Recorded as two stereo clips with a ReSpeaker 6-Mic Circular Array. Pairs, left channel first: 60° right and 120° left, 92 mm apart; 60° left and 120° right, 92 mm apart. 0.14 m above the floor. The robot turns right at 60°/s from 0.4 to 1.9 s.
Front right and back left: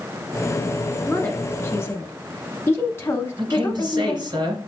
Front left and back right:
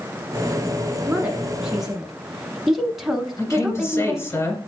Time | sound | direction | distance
1.1 | a woman speaking | 85° right | 1.1 m
3.4 | a man speaking | 110° left | 2.5 m